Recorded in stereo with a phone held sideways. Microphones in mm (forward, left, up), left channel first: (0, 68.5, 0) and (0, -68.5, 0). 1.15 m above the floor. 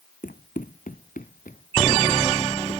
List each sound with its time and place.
0.2 s running footsteps: 75° left (ahead or behind); by 2.8 s 70° left (ahead or behind)